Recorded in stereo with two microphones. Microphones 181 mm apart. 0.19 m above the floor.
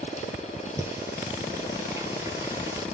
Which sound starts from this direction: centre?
Singing, at 0.8 s.